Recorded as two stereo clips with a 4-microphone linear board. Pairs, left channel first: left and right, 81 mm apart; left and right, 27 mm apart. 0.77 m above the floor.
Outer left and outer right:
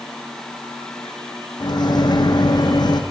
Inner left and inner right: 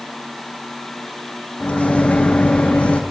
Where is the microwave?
60° left (ahead or behind), 0.8 m.